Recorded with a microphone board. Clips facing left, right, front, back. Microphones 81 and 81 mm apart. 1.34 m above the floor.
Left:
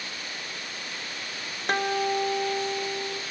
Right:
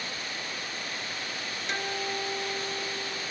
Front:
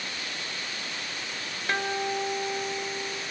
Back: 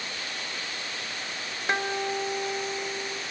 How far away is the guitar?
About 0.8 m.